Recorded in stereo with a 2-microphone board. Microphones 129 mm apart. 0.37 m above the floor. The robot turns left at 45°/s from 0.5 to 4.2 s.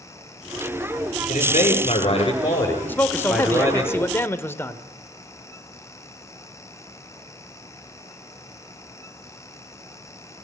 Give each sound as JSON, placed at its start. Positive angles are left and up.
{"t": 1.3, "sound": "a man speaking", "azimuth_deg": 85, "distance_m": 6.5}
{"t": 2.9, "sound": "a man speaking", "side_deg": 15, "distance_m": 1.2}